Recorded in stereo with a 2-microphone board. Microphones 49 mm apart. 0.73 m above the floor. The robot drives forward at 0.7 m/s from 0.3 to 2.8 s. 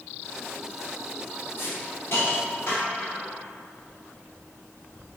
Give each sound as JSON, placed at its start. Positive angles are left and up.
{"t": 1.6, "sound": "a hiss", "side_deg": 60, "distance_m": 2.0}